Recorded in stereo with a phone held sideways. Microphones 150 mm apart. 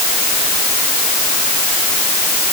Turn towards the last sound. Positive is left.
No sound to turn to.